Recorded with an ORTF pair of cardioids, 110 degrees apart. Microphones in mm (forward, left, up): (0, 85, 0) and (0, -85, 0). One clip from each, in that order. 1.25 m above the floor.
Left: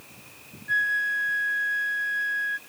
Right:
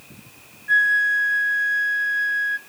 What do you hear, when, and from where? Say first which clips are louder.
0.7 s a flute: right 7 dB; 20° right, 0.6 m